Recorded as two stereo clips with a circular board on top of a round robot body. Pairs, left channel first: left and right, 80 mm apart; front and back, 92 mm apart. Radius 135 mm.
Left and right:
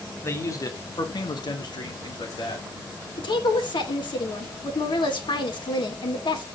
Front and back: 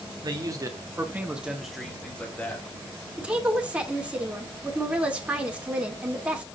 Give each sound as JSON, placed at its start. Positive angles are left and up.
{"t": 0.2, "sound": "a man speaking", "azimuth_deg": 145, "distance_m": 2.0}
{"t": 3.2, "sound": "a woman speaking", "azimuth_deg": 100, "distance_m": 2.5}